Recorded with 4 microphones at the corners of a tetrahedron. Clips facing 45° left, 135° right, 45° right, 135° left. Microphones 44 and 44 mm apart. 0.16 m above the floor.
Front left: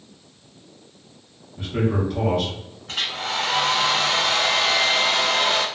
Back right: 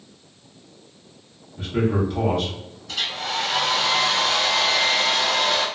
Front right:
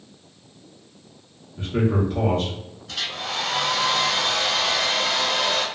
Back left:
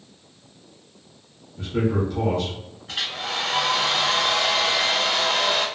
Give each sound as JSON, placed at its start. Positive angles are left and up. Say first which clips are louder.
{"t": 1.6, "sound": "a man speaking", "louder": "back right 1 dB, front right 1 dB", "azimuth_deg": -35, "distance_m": 1.2}
{"t": 2.9, "sound": "a hair dryer", "louder": "front left 1 dB, back left 1 dB", "azimuth_deg": 80, "distance_m": 1.0}